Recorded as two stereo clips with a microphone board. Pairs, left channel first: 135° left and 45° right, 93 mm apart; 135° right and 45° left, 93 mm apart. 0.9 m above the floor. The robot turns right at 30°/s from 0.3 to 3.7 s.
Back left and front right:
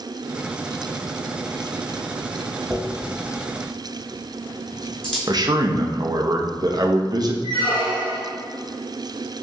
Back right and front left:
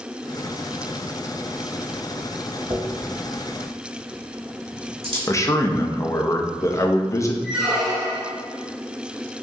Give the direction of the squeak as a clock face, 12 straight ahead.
8 o'clock.